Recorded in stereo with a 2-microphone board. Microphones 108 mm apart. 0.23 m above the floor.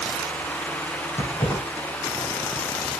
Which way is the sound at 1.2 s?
20° left (ahead or behind).